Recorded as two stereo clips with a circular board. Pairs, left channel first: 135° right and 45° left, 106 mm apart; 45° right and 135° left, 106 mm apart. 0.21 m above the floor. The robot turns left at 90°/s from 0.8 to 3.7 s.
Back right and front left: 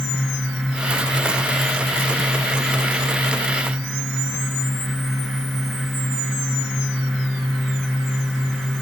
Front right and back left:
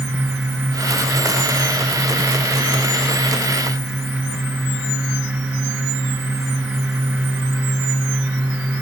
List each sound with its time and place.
Only background noise.